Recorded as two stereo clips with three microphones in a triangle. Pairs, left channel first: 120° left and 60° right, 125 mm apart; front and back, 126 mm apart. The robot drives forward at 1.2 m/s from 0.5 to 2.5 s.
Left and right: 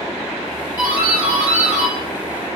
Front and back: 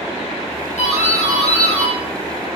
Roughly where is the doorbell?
Ahead.